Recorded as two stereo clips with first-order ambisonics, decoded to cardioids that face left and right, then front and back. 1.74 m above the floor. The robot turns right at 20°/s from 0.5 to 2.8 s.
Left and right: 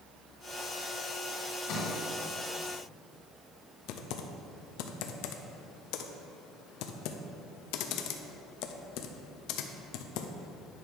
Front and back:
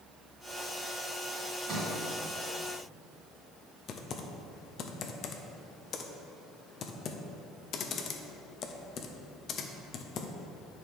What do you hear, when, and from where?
1.7 s a sliding door: 115° left, 2.5 m; by 2.0 s 120° left, 2.5 m
3.9 s typing on a keyboard: 60° left, 0.6 m